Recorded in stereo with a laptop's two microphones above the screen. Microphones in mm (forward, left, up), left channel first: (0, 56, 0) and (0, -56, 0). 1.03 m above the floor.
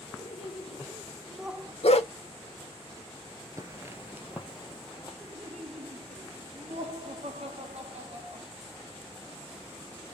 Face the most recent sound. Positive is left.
turn(degrees=-70)  # may be behind; listen again after turning